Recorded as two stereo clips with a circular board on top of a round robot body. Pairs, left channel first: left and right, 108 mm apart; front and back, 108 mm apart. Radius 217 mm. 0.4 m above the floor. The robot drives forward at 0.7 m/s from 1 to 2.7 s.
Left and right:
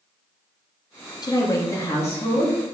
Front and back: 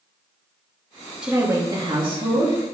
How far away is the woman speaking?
About 0.8 m.